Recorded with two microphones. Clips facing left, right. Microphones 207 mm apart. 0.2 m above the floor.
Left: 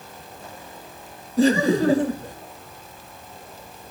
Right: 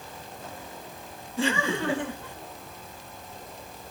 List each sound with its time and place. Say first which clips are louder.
1.4 s laughter: left 10 dB; 40° left (ahead or behind)